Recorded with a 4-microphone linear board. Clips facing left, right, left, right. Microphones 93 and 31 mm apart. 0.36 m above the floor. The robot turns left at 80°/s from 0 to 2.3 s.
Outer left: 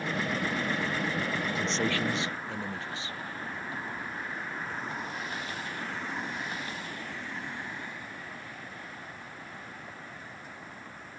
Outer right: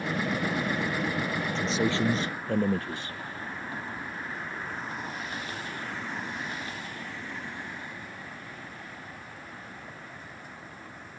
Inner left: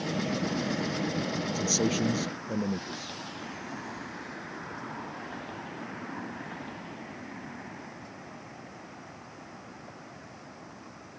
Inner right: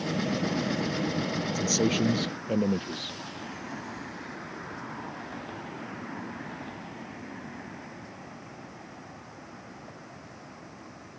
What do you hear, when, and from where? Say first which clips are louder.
1.6 s a man speaking: outer right 5 dB, inner right 2 dB; 10° left; by 3.2 s 50° right